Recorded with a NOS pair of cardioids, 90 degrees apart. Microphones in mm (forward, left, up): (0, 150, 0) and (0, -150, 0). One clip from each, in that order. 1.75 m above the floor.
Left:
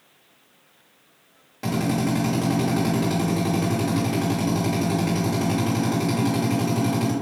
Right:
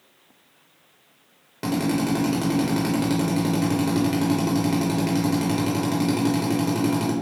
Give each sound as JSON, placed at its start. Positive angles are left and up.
{"t": 1.6, "sound": "a drill", "azimuth_deg": -30, "distance_m": 1.5}